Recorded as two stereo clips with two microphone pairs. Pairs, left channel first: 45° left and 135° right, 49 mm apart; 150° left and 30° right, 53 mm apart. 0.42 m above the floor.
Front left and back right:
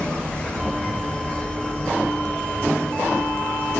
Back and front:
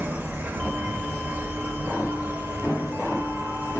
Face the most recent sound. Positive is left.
turn(degrees=-10)